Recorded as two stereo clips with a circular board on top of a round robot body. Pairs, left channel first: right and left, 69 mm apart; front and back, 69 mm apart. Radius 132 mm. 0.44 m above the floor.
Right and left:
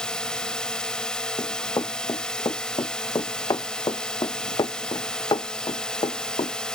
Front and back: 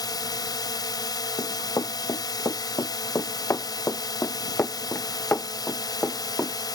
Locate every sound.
0.0 s a drone: 10° right
1.4 s running footsteps: 45° right; by 6.5 s 70° right